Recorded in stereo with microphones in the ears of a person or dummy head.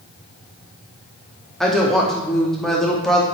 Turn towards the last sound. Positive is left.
turn(degrees=0)  # may be behind; listen again after turning